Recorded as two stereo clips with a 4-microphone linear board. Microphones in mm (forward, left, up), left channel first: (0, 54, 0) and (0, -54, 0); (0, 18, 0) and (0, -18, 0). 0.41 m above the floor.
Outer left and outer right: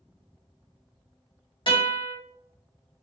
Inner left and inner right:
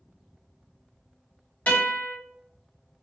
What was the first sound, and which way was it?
A guitar, 50° left (ahead or behind).